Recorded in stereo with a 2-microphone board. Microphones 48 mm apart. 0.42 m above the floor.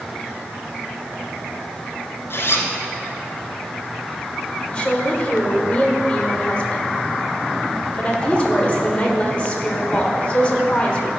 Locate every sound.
2.3 s a zipper: 55° left (ahead or behind), 1.2 m
4.7 s a woman speaking: 25° left (ahead or behind), 1.4 m